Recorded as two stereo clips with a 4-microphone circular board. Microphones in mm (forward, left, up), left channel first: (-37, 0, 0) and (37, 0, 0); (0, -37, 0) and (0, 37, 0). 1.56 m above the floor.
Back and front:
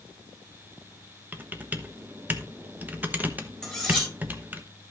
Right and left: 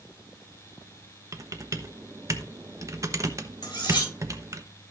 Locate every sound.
1.3 s typing on a keyboard: 60° left, 1.0 m
3.6 s cutlery clinking: 90° right, 4 m